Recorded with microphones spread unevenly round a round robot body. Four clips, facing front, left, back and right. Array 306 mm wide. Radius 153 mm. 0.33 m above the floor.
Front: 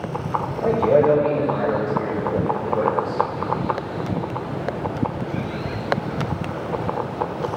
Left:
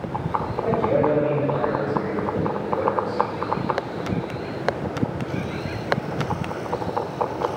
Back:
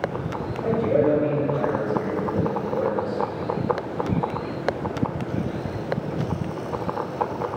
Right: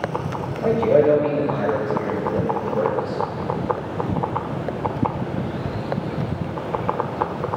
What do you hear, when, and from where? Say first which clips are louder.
0.6 s a man speaking: right 5 dB, front 4 dB; 30° right, 1.4 m